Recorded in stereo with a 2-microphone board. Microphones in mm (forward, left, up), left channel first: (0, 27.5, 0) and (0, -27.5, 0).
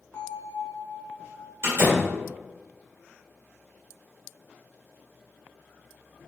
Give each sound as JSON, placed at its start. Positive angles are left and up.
{"t": 0.1, "sound": "a bell", "side_deg": 35, "distance_m": 0.8}
{"t": 1.6, "sound": "a door slam", "side_deg": -45, "distance_m": 1.7}